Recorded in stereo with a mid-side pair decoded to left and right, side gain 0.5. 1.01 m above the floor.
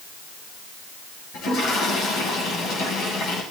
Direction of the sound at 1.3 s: 70° left.